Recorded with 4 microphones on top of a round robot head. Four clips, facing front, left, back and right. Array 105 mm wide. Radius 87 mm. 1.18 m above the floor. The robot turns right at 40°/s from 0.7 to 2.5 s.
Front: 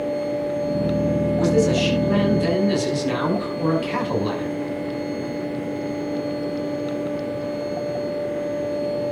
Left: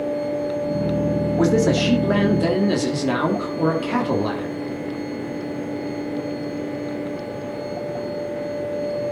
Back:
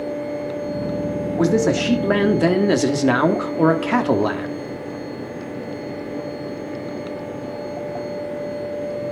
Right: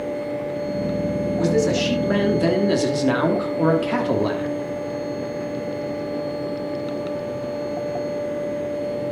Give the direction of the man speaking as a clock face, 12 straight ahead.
8 o'clock.